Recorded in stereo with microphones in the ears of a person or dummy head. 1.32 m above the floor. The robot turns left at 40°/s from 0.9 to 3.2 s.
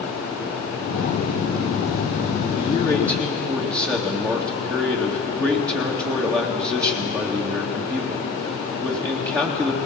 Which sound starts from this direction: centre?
A man speaking, at 2.6 s.